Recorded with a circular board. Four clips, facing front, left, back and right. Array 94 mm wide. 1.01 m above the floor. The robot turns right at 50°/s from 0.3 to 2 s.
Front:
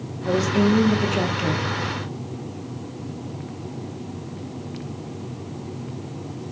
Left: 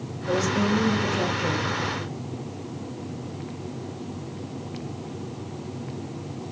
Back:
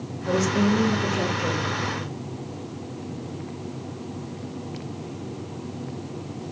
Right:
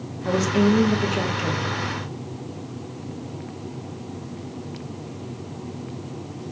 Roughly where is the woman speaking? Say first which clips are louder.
Right 4 dB, front 2 dB; right.